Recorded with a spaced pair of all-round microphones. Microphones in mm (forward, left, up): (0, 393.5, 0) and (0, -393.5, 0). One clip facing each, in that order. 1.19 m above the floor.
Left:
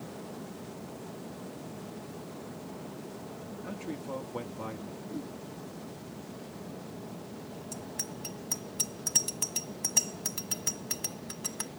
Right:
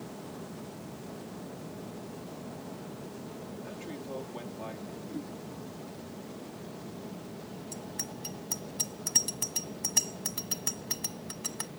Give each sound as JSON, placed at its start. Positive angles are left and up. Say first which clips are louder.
{"t": 3.6, "sound": "a man speaking", "louder": "left 6 dB", "side_deg": 70}
{"t": 5.0, "sound": "a whoosh", "louder": "even", "side_deg": 0}
{"t": 7.7, "sound": "a bicycle bell", "louder": "even", "side_deg": 10}